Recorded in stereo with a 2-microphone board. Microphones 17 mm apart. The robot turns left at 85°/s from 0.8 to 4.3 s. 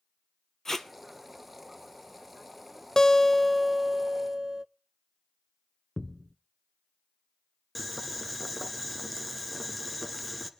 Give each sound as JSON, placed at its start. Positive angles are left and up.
{"t": 0.7, "sound": "tape being pulled", "side_deg": 30, "distance_m": 1.2}
{"t": 3.0, "sound": "a guitar", "azimuth_deg": 45, "distance_m": 0.5}
{"t": 6.0, "sound": "a thud", "side_deg": 30, "distance_m": 0.7}
{"t": 7.8, "sound": "boiling", "side_deg": 0, "distance_m": 1.4}